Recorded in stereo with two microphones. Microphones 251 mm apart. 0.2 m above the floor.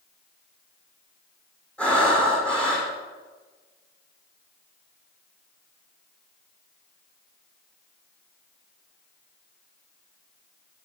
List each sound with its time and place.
1.8 s breathing: 5° left (ahead or behind), 4.5 m